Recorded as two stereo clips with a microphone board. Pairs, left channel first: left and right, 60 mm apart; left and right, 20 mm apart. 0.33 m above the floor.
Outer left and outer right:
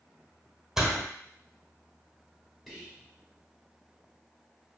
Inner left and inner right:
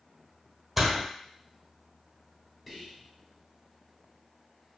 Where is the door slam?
5° right (ahead or behind), 0.9 m.